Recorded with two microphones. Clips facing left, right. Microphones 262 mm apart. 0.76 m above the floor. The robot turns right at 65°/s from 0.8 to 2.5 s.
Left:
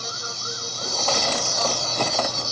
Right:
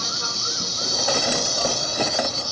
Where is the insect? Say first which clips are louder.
Right 2 dB; 85° right, 1.0 m; by 2.5 s 25° left, 1.0 m.